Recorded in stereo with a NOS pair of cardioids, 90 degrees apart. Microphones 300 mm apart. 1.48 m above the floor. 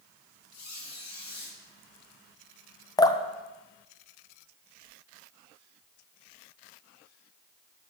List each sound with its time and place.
0.5 s a squeak: 65° left, 3.5 m
3.0 s dripping: 15° left, 0.5 m